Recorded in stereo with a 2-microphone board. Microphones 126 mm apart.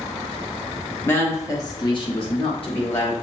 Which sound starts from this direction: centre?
A woman speaking, at 1.1 s.